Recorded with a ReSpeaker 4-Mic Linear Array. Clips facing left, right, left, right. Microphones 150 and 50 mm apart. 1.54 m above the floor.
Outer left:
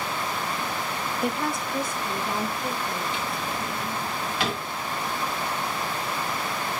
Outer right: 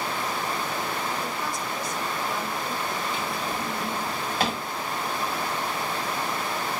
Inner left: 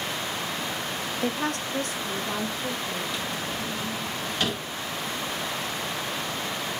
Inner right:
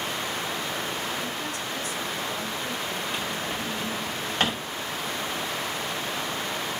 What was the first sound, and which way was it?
A woman speaking, 70° left (ahead or behind).